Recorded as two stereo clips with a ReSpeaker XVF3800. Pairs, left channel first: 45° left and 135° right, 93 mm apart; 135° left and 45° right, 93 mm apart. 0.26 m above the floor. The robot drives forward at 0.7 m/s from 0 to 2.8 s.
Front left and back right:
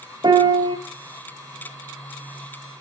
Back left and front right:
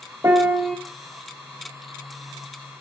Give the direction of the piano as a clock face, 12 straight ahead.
3 o'clock.